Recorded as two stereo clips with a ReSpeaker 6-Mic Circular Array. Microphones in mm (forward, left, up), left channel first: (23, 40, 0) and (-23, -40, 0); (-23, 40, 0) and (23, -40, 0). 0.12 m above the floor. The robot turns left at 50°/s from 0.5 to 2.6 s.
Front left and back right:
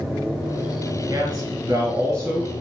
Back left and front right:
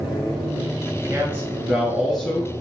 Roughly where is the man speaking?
Right.